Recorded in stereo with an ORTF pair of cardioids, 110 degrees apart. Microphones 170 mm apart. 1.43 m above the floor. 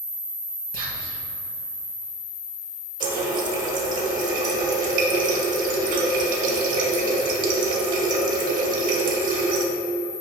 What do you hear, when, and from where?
0.7 s whispering: 65° right, 2.5 m
3.0 s a running tap: 55° right, 1.3 m